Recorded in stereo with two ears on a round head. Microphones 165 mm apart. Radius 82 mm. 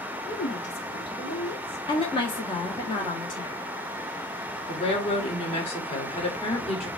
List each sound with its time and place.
0.3 s a woman speaking: 65° left (ahead or behind), 1.3 m; by 1.8 s 60° left (ahead or behind), 2.5 m
1.9 s a woman speaking: 30° left (ahead or behind), 1.3 m
4.7 s a woman speaking: 35° left (ahead or behind), 1.8 m